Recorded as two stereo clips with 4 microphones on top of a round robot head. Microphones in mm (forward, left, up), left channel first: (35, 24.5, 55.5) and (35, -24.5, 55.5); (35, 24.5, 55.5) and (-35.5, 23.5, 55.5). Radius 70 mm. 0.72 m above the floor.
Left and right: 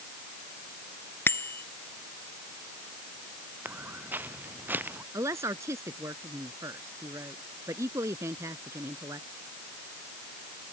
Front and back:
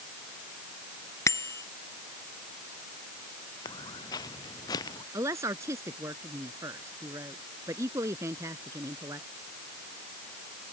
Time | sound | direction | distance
1.3 | a bicycle bell | 50° left | ?
3.6 | footsteps | 40° right | ?
5.1 | a woman speaking | 125° right | ?